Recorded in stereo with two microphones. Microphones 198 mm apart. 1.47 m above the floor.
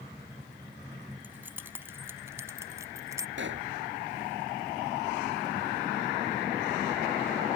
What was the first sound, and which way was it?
Keys jangling, 10° right (ahead or behind).